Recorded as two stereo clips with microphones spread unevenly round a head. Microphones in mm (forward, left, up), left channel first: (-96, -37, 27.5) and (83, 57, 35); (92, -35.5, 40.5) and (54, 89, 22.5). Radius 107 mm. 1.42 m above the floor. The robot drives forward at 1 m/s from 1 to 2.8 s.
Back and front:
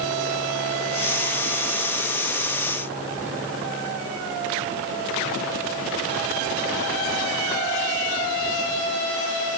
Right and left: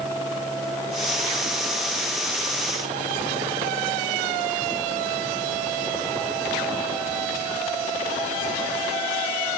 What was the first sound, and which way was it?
Only background noise.